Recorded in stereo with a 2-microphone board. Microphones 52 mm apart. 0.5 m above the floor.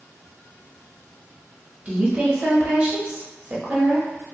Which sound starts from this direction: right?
A woman speaking, at 1.9 s.